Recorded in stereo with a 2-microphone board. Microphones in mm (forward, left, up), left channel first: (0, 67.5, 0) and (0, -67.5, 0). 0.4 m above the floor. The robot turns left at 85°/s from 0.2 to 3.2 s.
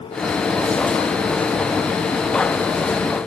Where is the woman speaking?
No woman speaking in this recording.